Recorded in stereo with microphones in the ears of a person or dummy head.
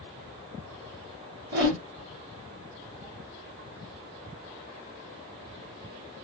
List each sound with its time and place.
1.5 s a whoosh: 80° right, 1.7 m